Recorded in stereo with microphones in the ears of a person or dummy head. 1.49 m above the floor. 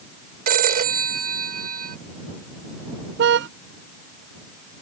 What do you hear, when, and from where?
0.5 s a phone ringing: 55° right (ahead or behind)
3.2 s a car horn: 70° right (ahead or behind)